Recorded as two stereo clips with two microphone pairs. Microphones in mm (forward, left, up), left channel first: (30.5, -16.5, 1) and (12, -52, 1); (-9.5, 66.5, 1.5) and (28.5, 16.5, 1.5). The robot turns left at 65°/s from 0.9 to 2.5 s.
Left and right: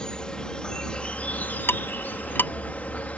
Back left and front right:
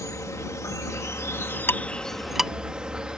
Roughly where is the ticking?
Left.